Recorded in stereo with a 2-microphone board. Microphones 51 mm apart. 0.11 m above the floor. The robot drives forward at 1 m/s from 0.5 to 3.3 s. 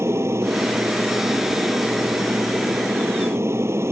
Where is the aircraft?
60° right (ahead or behind).